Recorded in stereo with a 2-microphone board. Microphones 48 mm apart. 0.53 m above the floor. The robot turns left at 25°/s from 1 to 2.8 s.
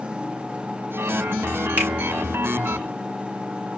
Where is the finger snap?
45° right (ahead or behind), 1.8 m.